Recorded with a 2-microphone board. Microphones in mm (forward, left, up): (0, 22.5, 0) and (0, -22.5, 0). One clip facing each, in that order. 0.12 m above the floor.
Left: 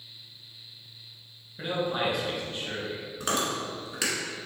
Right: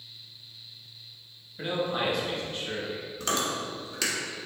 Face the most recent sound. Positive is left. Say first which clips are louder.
# left 1 dB
turn(degrees=15)  # may be behind; listen again after turning